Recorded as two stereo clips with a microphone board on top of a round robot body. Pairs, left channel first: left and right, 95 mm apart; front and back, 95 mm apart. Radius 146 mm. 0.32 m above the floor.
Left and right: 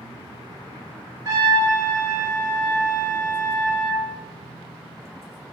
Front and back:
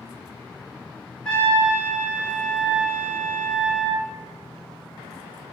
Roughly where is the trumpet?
Right.